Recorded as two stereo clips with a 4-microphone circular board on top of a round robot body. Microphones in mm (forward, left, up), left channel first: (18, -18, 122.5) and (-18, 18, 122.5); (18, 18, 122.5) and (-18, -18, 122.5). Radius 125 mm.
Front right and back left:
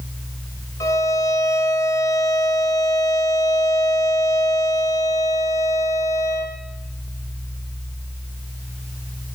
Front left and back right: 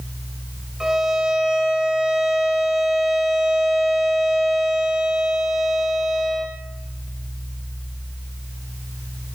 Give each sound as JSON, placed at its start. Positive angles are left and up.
{"t": 0.8, "sound": "a violin", "azimuth_deg": -50, "distance_m": 0.5}